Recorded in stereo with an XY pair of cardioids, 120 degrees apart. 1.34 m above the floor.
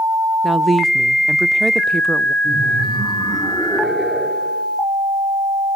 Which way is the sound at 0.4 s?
20° right.